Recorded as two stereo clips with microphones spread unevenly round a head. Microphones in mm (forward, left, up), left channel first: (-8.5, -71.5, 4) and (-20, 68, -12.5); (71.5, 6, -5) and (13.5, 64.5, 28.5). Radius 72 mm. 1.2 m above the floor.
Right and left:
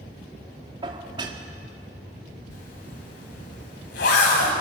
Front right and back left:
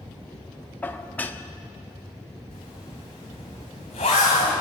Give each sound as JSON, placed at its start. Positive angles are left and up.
{"t": 0.8, "sound": "dishes clattering", "azimuth_deg": 35, "distance_m": 1.4}
{"t": 2.5, "sound": "a zipper", "azimuth_deg": -90, "distance_m": 4.0}